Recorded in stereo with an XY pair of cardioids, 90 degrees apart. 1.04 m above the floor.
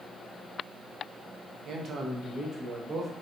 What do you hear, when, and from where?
1.6 s a man speaking: 65° right, 0.7 m; by 3.1 s 40° right, 1.3 m